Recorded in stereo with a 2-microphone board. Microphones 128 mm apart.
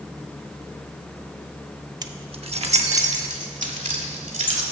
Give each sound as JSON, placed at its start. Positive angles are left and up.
{"t": 2.0, "sound": "keys jangling", "side_deg": -30, "distance_m": 0.5}